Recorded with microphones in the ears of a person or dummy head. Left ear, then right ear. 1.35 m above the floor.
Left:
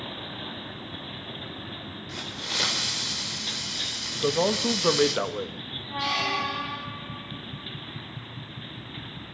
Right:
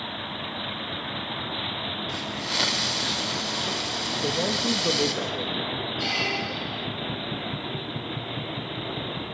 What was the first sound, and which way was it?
A hiss, 10° right (ahead or behind).